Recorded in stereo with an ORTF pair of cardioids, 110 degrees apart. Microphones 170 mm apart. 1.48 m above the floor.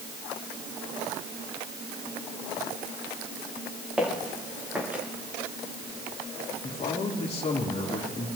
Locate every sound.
4.0 s footsteps: 5° right, 7.5 m; by 5.0 s 10° right, 7 m
6.6 s a man speaking: 40° left, 3.5 m